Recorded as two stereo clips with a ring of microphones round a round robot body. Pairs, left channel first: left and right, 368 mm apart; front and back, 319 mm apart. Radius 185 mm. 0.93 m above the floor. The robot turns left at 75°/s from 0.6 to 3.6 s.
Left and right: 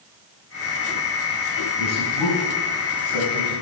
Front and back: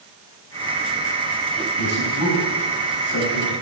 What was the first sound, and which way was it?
A man speaking, 150° left.